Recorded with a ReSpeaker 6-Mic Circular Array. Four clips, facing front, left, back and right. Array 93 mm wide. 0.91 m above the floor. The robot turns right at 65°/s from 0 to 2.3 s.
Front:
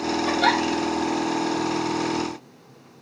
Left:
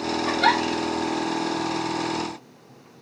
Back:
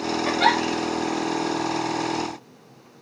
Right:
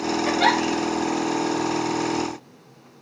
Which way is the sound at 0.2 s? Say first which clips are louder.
Even, back 1 dB; 155° right.